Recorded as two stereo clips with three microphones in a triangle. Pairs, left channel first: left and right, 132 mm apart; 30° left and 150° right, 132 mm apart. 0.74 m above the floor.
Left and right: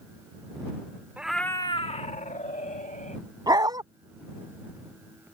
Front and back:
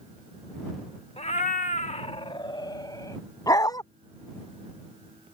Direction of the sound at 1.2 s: 10° right.